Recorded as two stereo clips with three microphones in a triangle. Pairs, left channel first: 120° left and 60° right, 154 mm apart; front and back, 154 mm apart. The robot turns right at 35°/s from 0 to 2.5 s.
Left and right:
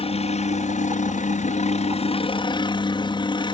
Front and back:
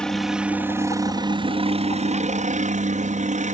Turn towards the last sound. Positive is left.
turn(degrees=170)